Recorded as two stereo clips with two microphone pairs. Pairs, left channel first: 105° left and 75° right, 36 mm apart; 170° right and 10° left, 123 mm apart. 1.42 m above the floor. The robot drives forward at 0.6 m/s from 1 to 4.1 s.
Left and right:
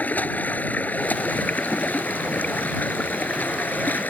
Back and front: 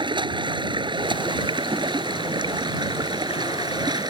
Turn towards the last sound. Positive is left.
turn(degrees=65)